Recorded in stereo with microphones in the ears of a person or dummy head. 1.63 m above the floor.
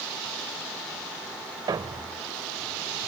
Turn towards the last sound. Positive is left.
turn(degrees=-20)  # may be behind; listen again after turning